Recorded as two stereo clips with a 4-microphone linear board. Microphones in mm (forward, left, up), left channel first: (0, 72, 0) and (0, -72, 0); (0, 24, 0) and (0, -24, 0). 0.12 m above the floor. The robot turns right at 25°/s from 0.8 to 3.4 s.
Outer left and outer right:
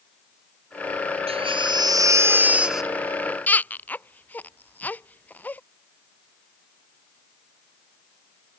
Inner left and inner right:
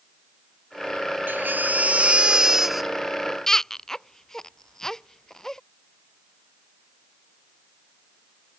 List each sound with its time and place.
1.3 s a baby crying: 40° right (ahead or behind); by 5.6 s 10° left (ahead or behind)